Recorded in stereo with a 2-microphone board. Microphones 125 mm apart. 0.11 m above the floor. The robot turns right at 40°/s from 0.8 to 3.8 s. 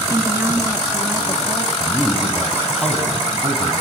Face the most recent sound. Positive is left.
turn(degrees=-115)